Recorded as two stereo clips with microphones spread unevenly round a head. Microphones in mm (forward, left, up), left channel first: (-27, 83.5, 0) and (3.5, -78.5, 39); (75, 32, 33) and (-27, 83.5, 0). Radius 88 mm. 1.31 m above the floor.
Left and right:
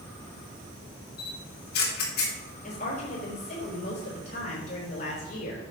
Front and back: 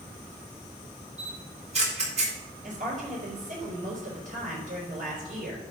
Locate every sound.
1.2 s a camera shutter: 130° left, 3.5 m
2.6 s a woman speaking: 140° left, 4.5 m